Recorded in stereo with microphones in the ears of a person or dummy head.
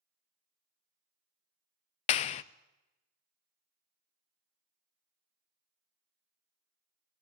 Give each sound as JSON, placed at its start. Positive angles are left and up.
{"t": 2.1, "sound": "a clap", "side_deg": 40, "distance_m": 0.5}